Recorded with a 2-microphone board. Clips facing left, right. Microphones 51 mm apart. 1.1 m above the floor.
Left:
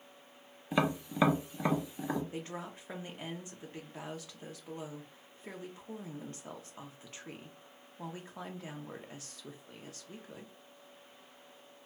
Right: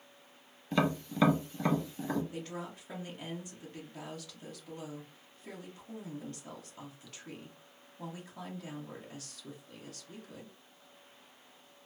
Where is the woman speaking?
30° left (ahead or behind), 0.7 m.